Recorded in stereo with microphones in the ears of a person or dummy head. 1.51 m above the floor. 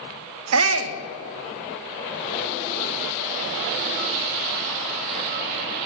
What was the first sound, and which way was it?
A shout, 65° right (ahead or behind).